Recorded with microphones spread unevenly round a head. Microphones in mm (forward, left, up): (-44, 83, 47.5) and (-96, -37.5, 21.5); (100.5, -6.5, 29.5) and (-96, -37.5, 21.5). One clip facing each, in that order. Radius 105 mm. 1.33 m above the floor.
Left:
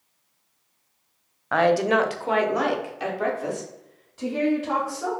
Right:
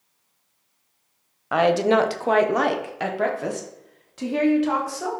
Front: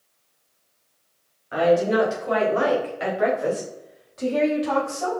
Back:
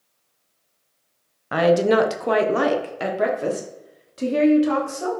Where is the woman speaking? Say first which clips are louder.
Right 2 dB, back 2 dB; 170° left, 0.7 m; by 5.1 s 115° right, 2 m.